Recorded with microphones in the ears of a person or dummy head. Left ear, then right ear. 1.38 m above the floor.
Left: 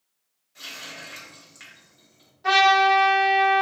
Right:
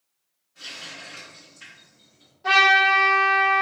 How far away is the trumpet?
About 1.3 m.